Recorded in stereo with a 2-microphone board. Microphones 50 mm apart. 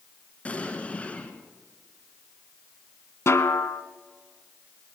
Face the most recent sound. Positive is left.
turn(degrees=60)  # may be behind; listen again after turning